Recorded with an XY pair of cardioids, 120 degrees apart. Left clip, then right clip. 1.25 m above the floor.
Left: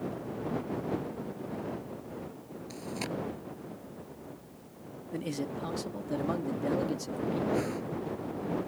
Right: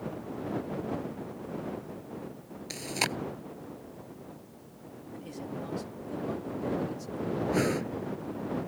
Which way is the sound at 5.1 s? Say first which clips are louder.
Left 5 dB; 50° left.